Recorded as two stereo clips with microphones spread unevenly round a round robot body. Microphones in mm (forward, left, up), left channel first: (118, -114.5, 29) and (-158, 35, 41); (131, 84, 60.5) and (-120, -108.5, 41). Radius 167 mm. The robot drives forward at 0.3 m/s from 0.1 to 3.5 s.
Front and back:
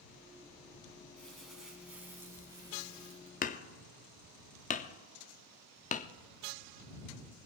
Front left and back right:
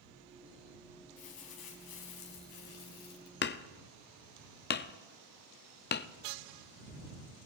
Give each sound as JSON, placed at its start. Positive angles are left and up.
{"t": 1.2, "sound": "crumpling", "azimuth_deg": 60, "distance_m": 1.7}
{"t": 3.4, "sound": "hammering", "azimuth_deg": 5, "distance_m": 0.5}